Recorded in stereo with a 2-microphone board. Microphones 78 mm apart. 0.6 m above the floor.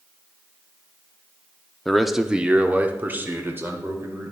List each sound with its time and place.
1.9 s a man speaking: 5° left (ahead or behind), 0.7 m; by 4.3 s 35° right (ahead or behind), 2 m